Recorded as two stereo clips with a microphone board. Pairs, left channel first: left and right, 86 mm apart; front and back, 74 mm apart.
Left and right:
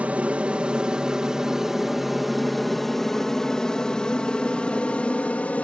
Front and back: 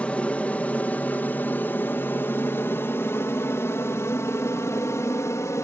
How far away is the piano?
I don't hear a piano.